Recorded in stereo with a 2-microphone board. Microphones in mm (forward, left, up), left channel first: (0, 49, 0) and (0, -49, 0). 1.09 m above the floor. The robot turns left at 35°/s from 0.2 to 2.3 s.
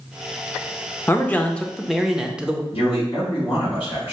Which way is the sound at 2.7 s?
65° left (ahead or behind).